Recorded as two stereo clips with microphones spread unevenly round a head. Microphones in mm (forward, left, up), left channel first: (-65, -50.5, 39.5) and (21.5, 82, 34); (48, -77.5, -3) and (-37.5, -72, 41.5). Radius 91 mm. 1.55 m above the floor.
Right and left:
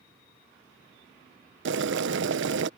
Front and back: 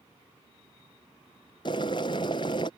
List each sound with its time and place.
1.6 s boiling: 60° left